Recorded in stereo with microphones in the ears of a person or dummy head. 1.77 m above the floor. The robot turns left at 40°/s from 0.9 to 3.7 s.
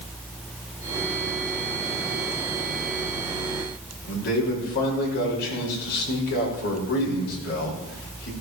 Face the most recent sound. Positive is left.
turn(degrees=55)  # may be behind; listen again after turning